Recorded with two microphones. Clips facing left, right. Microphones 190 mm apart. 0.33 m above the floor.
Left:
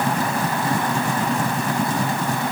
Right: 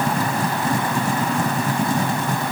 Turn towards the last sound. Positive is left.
No sound to turn to.